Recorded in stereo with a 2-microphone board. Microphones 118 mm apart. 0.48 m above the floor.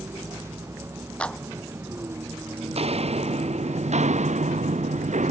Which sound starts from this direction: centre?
A clap, at 1.2 s.